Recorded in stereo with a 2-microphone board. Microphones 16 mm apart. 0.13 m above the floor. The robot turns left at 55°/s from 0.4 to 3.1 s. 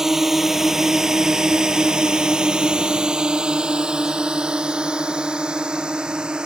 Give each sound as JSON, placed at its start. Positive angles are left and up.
{"t": 0.0, "sound": "a drone", "side_deg": -25}